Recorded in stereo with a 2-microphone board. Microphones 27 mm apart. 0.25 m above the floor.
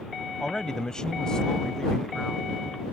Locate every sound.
0.4 s a man speaking: 20° left (ahead or behind); by 2.5 s 15° left (ahead or behind)